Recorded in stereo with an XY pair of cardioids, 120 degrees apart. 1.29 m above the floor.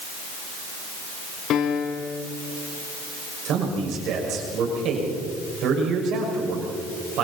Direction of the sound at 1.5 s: 60° left.